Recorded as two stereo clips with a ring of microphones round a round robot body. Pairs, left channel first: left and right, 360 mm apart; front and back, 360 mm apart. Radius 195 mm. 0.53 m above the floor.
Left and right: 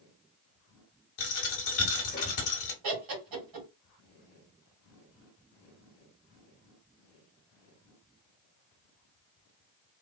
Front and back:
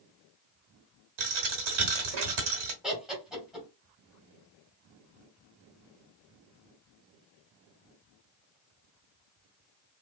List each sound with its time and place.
1.2 s a dropped coin: 150° left, 1.0 m
2.8 s laughter: 90° right, 2 m